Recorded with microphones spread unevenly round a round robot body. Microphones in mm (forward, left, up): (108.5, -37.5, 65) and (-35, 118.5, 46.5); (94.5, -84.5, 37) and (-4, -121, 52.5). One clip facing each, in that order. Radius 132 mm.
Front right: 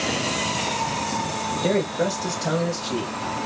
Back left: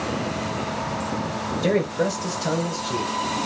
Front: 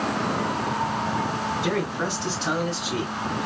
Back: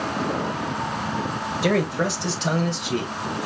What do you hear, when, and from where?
1.6 s a man speaking: 160° right, 1.8 m; by 3.1 s 135° right, 3 m